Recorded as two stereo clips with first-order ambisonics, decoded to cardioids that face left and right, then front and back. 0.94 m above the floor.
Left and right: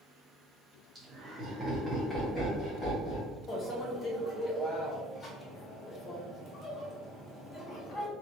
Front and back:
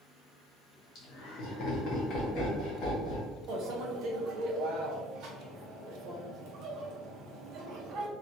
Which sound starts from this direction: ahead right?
Laughter, at 0.9 s.